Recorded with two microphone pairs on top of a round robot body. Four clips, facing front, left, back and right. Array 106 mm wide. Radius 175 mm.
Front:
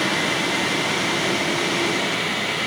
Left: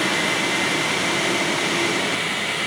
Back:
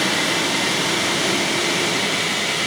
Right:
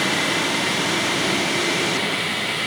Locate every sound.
Only background noise.